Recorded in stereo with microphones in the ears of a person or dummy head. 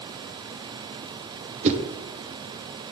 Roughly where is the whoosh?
Right.